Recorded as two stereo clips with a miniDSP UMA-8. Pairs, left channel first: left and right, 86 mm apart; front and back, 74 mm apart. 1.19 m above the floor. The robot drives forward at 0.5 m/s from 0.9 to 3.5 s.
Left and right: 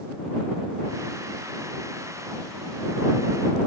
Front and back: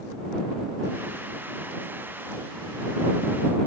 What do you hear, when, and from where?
Only background noise.